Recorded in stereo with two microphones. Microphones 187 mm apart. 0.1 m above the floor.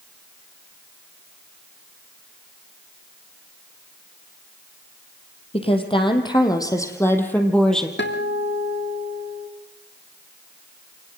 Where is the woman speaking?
35° left (ahead or behind), 4 m; by 7.9 s centre (ahead or behind), 3.5 m.